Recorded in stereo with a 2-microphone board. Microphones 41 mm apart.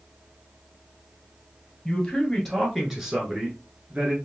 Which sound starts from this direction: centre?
A man speaking, at 1.9 s.